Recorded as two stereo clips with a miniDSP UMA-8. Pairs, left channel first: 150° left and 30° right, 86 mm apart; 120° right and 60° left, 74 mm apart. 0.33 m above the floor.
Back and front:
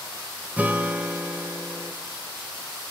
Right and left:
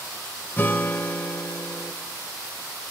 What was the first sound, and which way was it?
A guitar, 85° right.